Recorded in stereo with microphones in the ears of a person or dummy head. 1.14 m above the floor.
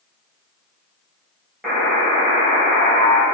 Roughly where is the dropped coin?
No dropped coin in this recording.